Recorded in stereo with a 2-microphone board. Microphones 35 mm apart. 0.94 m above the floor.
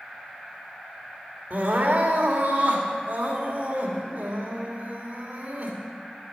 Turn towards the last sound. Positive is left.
turn(degrees=-50)  # may be behind; listen again after turning